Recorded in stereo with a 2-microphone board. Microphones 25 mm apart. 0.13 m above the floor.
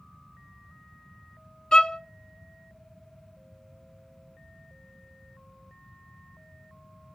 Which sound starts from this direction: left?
A violin, at 1.7 s.